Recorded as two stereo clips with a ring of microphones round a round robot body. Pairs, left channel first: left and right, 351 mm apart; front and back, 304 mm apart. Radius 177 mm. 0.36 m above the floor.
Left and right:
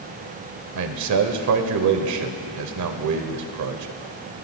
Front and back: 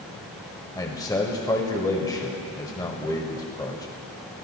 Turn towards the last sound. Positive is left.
turn(degrees=-75)